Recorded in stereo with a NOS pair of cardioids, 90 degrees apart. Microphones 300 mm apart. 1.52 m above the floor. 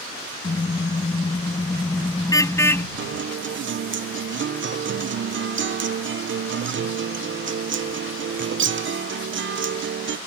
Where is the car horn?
25° left; by 2.9 s 5° left.